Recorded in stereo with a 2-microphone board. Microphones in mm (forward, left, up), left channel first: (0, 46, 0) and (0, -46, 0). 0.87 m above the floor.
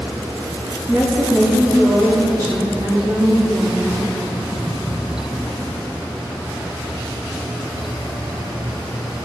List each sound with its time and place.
0.9 s a woman speaking: centre (ahead or behind), 1.2 m; by 4.2 s 60° right (ahead or behind), 2.5 m